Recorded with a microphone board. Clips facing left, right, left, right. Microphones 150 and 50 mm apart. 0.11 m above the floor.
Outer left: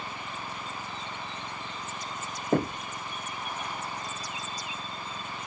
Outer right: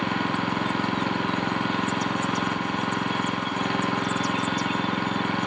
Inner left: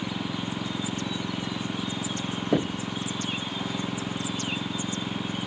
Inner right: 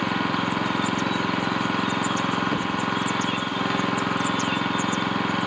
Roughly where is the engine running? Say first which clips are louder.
Outer right 13 dB, inner right 8 dB; right.